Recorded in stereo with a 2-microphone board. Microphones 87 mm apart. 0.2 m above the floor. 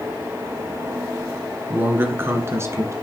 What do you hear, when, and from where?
1.7 s a man speaking: 20° right (ahead or behind), 1.8 m; by 2.9 s 35° right (ahead or behind), 2.5 m